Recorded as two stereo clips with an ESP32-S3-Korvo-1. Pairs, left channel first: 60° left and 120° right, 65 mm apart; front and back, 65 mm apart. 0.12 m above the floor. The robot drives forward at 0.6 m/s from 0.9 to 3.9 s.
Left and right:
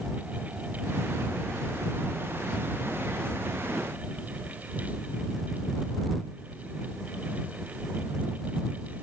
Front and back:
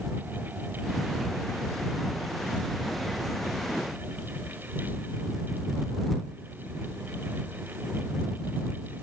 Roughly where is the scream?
No scream in this recording.